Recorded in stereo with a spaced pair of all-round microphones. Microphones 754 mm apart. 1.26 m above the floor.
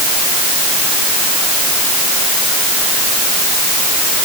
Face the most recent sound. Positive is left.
No sound to turn to.